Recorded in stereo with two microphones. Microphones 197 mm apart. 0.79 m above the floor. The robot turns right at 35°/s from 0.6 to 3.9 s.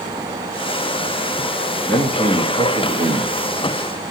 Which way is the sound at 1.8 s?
170° left.